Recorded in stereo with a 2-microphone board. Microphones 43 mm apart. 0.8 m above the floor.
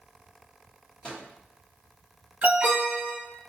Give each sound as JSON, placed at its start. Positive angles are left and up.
{"t": 1.0, "sound": "a microwave", "side_deg": 20, "distance_m": 1.2}
{"t": 2.4, "sound": "an alarm", "side_deg": -30, "distance_m": 1.7}